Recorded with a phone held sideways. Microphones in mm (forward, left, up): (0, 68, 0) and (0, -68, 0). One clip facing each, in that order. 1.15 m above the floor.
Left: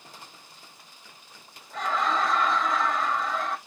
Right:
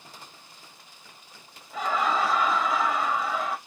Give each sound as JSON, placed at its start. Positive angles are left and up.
{"t": 1.7, "sound": "laughter", "side_deg": -10, "distance_m": 0.7}